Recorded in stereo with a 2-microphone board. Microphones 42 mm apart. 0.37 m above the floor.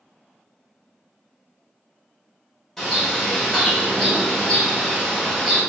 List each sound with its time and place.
2.8 s a bird: 10° left (ahead or behind), 1.6 m